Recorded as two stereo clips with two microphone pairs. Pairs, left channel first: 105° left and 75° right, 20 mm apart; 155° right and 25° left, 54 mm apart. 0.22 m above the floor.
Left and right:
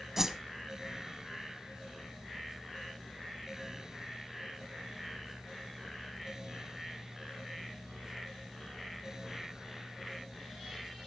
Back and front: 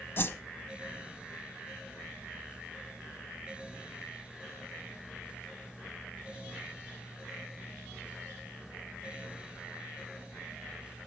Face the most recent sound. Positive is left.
turn(degrees=-140)